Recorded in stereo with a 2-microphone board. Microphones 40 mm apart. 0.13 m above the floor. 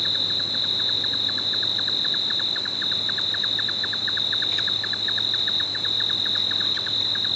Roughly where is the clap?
I don't hear a clap.